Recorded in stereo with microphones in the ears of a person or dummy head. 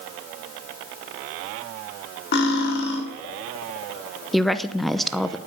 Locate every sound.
2.3 s cutlery clinking: 60° left (ahead or behind), 2.5 m
4.3 s a woman speaking: centre (ahead or behind), 0.8 m